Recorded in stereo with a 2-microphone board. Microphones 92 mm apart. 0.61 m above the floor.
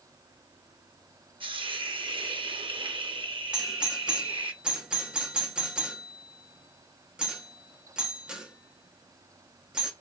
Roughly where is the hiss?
Right.